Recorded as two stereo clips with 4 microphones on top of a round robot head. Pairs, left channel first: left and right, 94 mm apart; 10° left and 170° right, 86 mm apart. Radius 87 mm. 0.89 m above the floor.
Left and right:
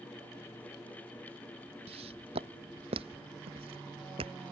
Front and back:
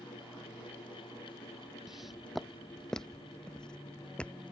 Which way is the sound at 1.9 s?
85° right.